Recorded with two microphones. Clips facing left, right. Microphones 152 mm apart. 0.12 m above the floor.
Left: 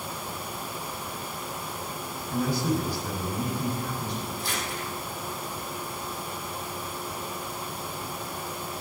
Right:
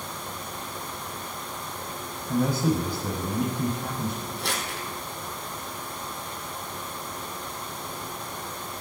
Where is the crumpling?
75° right (ahead or behind), 3 m.